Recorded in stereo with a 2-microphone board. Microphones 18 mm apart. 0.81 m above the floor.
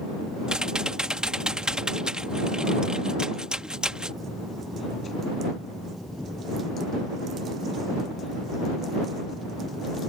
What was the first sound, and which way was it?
Typing on a keyboard, 60° right (ahead or behind).